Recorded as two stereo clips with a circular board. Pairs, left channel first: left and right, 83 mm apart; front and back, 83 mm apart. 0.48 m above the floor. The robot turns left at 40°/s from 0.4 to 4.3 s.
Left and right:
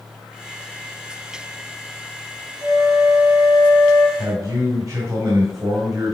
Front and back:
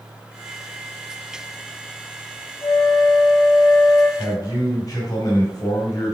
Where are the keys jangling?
I don't hear keys jangling.